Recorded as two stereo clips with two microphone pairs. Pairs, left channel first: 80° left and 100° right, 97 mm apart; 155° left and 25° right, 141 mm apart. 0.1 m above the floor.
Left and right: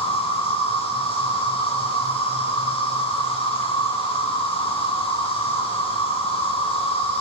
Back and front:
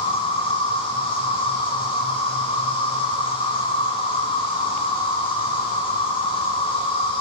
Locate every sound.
0.0 s an insect: 100° left, 9 m